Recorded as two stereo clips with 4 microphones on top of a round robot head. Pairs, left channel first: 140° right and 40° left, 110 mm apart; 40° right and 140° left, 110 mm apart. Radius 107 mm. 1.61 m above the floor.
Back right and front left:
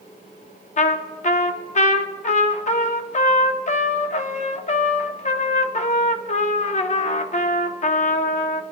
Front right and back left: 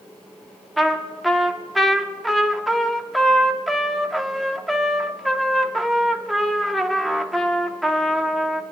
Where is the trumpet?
130° right, 0.7 m.